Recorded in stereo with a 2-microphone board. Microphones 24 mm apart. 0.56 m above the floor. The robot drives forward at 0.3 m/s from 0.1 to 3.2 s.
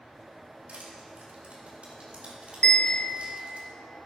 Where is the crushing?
60° right (ahead or behind), 3 m; by 3.6 s 50° right (ahead or behind), 3 m.